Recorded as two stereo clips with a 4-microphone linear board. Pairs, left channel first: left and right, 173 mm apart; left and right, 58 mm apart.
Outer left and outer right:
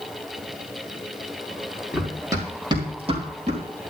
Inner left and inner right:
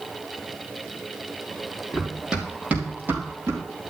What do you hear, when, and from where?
1.9 s running footsteps: 5° right (ahead or behind), 3.5 m; by 3.6 s 45° right (ahead or behind), 4 m